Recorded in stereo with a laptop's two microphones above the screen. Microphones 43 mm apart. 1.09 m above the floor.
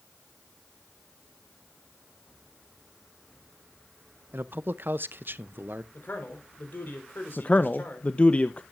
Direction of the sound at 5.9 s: 55° left (ahead or behind).